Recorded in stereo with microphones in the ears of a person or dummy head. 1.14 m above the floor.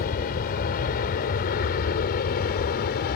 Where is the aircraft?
50° left (ahead or behind); by 3.2 s 55° left (ahead or behind).